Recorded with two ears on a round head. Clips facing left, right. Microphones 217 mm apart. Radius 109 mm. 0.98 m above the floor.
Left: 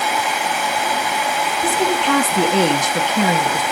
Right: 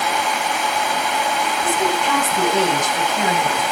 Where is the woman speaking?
60° left (ahead or behind), 2 m.